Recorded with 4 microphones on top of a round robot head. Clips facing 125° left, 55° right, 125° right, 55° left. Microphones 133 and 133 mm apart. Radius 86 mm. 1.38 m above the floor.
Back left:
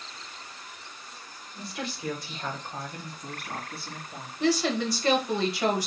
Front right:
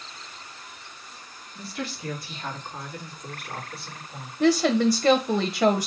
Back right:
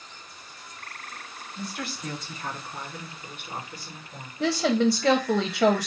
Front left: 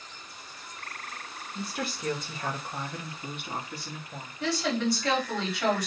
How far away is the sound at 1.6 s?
About 1.7 m.